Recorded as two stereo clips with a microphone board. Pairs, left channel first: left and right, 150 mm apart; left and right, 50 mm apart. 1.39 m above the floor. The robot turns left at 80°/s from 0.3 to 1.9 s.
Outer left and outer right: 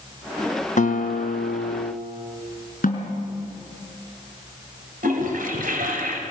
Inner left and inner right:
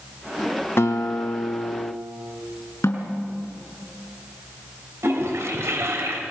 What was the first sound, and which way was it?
A guitar, 125° left.